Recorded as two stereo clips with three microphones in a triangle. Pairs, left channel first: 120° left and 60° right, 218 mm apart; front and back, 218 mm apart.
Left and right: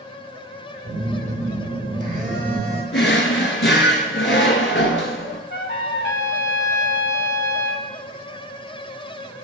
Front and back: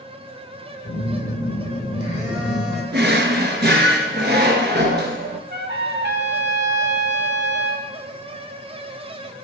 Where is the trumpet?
145° left, 0.7 m.